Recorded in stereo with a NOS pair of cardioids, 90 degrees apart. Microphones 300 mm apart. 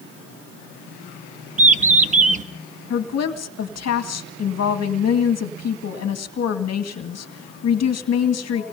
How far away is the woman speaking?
About 2 m.